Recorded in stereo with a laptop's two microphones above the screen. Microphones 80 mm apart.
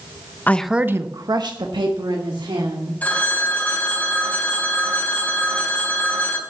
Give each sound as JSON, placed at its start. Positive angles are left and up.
{"t": 0.5, "sound": "a woman speaking", "side_deg": 25, "distance_m": 0.6}
{"t": 3.0, "sound": "a phone ringing", "side_deg": 20, "distance_m": 4.0}